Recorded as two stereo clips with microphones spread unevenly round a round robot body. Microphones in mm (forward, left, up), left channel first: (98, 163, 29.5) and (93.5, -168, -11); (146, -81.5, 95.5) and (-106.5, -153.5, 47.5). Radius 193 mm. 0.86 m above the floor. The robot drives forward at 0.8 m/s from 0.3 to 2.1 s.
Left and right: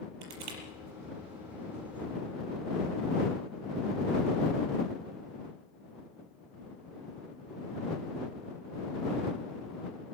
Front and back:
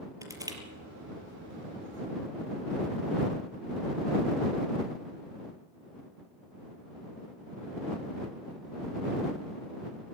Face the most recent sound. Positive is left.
turn(degrees=-100)